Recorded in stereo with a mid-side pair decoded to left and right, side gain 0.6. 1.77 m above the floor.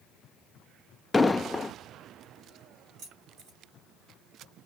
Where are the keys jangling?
60° right, 3.5 m.